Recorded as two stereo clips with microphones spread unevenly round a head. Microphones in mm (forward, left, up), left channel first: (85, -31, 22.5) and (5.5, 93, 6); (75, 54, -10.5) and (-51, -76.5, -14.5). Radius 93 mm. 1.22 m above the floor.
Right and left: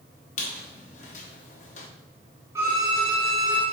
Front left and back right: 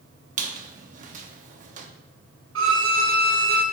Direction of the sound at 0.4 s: 90° right.